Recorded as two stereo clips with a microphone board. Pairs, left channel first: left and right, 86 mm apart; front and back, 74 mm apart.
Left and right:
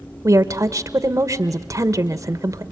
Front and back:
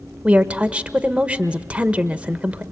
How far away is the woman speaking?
About 1.1 m.